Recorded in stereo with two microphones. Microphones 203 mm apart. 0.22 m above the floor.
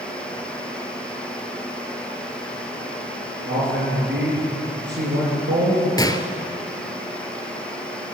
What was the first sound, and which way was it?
A man speaking, 60° right (ahead or behind).